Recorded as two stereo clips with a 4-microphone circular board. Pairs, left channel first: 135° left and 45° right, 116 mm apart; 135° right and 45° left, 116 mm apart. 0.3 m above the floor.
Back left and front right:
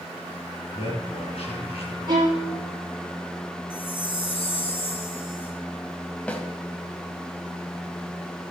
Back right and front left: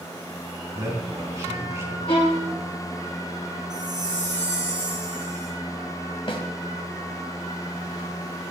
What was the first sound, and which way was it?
A man speaking, 110° left.